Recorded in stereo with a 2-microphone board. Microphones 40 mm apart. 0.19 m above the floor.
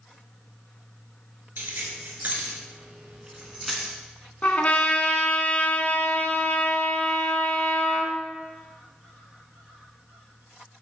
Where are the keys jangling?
55° right (ahead or behind), 2 m; by 4.0 s 10° left (ahead or behind), 1.3 m.